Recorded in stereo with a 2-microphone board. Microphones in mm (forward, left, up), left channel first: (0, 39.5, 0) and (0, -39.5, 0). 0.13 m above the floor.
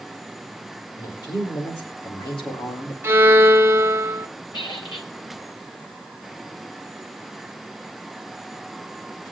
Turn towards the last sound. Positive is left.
turn(degrees=65)  # may be behind; listen again after turning